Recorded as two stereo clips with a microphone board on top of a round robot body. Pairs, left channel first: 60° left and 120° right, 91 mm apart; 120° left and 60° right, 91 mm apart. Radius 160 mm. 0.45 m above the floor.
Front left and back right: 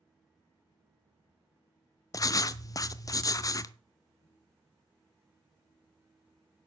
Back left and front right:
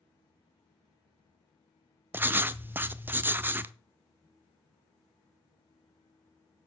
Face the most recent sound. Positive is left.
turn(degrees=10)